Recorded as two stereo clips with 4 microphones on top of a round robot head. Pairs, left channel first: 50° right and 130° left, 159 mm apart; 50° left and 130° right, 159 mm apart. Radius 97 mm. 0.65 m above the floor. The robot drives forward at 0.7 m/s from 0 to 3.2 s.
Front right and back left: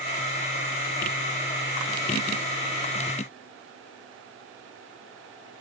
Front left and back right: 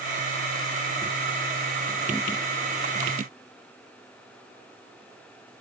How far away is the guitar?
No guitar in this recording.